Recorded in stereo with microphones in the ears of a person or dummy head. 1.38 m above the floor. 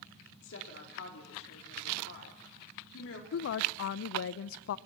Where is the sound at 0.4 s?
70° left (ahead or behind), 4 m.